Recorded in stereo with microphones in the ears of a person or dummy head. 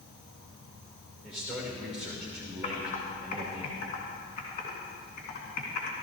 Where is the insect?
50° left (ahead or behind), 5 m.